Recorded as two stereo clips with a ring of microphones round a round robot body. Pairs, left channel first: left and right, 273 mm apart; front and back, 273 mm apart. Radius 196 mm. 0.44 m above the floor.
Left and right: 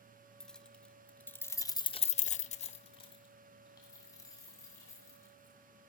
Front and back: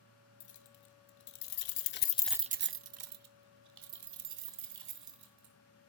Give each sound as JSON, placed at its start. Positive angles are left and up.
{"t": 0.4, "sound": "keys jangling", "azimuth_deg": 0, "distance_m": 2.0}